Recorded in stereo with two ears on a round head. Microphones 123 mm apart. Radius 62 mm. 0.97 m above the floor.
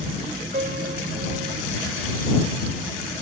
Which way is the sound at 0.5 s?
55° right (ahead or behind).